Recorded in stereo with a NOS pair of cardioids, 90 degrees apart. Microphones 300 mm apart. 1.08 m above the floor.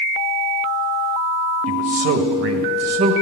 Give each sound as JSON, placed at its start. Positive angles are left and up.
{"t": 1.7, "sound": "a man speaking", "azimuth_deg": -50, "distance_m": 1.5}